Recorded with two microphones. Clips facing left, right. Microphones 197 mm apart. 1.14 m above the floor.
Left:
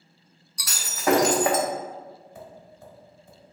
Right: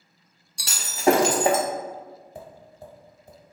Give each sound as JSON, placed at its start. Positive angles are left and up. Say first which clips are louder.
{"t": 0.6, "sound": "breaking glass", "louder": "right 4 dB", "side_deg": -30, "distance_m": 0.6}
{"t": 2.4, "sound": "tapping", "louder": "right 2 dB", "side_deg": -35, "distance_m": 1.0}